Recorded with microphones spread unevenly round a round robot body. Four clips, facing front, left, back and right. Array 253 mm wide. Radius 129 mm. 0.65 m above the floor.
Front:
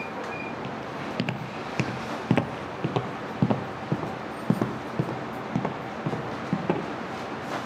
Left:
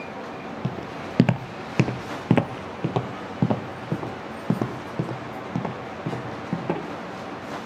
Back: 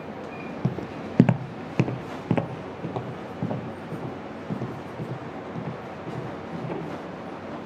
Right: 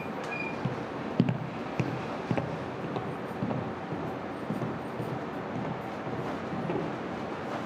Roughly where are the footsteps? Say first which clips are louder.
Left 2 dB, back 2 dB; behind left.